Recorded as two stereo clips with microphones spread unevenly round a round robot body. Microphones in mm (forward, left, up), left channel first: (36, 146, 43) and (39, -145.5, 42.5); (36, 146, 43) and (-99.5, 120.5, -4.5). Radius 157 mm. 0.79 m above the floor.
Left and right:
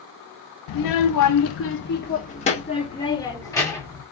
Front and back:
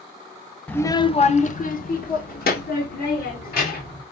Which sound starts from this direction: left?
A child speaking, at 0.7 s.